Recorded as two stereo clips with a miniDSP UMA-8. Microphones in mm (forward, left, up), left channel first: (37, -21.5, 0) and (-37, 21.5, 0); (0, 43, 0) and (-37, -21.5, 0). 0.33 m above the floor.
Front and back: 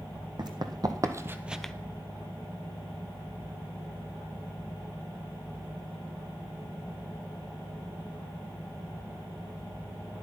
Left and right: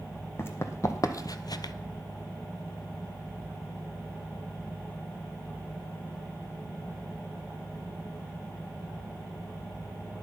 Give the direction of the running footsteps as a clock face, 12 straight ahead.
8 o'clock.